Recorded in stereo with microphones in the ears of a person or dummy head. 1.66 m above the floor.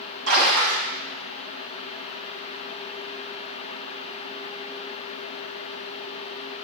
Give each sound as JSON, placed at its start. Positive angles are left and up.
{"t": 0.3, "sound": "a splash", "side_deg": -70, "distance_m": 2.5}